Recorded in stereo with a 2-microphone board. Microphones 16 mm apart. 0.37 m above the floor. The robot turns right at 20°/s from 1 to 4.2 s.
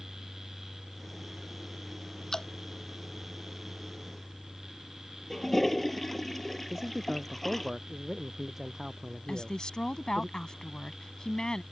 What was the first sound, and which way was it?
Dripping, 30° left (ahead or behind).